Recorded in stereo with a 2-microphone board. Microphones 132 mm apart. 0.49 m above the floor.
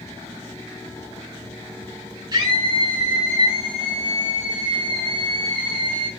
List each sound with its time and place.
2.3 s a scream: 30° right (ahead or behind), 6.5 m; by 6.1 s 40° right (ahead or behind), 8.5 m